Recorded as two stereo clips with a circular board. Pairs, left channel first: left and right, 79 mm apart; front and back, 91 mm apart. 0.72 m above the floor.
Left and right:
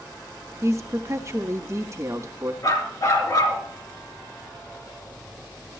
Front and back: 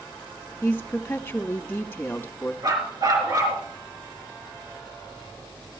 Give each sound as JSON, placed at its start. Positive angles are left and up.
{"t": 0.6, "sound": "a woman speaking", "azimuth_deg": -60, "distance_m": 1.1}
{"t": 2.6, "sound": "a dog barking", "azimuth_deg": 130, "distance_m": 3.5}